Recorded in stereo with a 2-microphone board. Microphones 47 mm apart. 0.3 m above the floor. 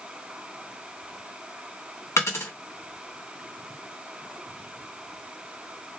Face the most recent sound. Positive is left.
turn(degrees=75)  # may be behind; listen again after turning